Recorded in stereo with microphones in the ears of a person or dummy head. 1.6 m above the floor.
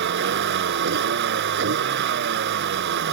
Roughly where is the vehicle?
Right.